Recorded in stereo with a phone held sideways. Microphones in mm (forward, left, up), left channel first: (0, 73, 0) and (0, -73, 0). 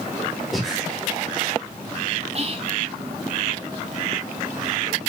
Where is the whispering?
40° right (ahead or behind), 0.6 m.